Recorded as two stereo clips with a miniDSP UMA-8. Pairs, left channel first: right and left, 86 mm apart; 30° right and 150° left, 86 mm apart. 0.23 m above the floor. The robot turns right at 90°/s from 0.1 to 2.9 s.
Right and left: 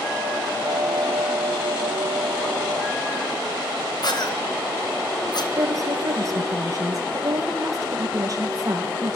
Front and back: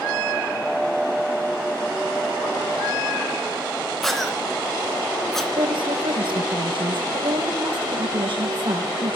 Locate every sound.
4.0 s a cough: 115° right, 3 m
5.6 s a woman speaking: 140° left, 4.5 m